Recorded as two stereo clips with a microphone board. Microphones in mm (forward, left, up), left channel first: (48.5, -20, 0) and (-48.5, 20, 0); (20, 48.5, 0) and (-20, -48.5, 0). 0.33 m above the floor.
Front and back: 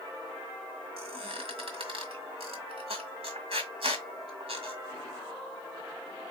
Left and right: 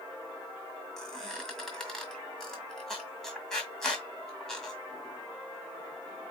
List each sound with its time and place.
1.0 s a squeak: 150° left, 1.7 m